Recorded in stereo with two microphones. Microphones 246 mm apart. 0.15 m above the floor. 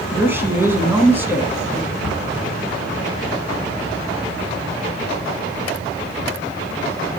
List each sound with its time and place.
0.1 s a woman speaking: 10° right (ahead or behind), 1.2 m
2.0 s a cupboard door: 65° right (ahead or behind), 5 m